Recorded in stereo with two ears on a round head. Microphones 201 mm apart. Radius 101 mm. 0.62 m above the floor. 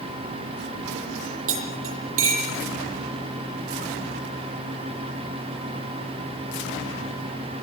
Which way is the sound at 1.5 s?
65° right (ahead or behind).